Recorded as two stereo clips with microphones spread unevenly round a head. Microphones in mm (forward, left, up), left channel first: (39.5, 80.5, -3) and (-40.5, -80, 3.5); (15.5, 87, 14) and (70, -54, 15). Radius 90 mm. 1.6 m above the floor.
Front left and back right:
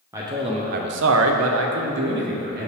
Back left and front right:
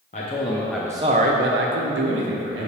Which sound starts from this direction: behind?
A man speaking, at 0.1 s.